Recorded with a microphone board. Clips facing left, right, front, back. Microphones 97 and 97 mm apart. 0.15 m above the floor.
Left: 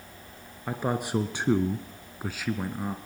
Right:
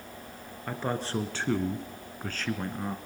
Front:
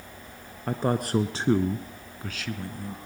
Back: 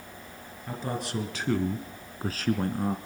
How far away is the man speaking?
About 1.9 m.